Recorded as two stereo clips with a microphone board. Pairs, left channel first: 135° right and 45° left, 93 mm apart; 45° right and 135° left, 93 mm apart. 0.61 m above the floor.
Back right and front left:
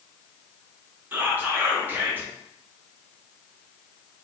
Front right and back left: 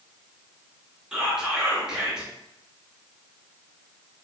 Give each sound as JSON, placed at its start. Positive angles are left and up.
{"t": 1.1, "sound": "whispering", "azimuth_deg": 65, "distance_m": 0.8}